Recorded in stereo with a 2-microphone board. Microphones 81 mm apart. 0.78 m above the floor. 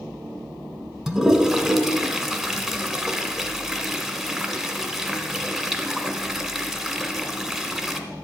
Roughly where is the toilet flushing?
Centre.